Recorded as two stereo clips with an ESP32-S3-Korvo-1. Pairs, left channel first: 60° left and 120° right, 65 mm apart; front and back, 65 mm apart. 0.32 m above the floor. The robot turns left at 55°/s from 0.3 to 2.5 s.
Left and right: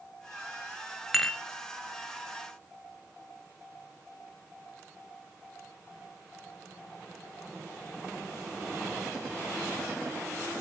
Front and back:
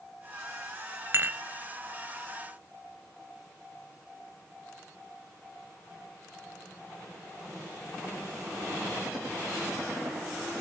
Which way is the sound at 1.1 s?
150° left.